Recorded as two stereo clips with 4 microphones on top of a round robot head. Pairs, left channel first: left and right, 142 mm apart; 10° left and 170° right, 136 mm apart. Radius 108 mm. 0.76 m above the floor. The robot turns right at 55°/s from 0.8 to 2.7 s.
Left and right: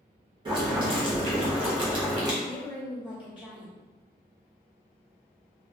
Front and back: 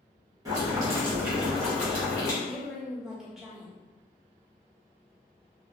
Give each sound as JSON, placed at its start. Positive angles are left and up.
{"t": 0.5, "sound": "boiling", "azimuth_deg": -120, "distance_m": 1.3}
{"t": 2.4, "sound": "a woman speaking", "azimuth_deg": 90, "distance_m": 1.0}